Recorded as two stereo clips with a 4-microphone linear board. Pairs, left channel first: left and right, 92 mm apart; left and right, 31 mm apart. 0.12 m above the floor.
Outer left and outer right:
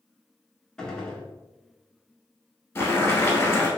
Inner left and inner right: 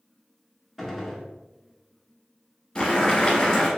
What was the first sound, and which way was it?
A gunshot, 5° left (ahead or behind).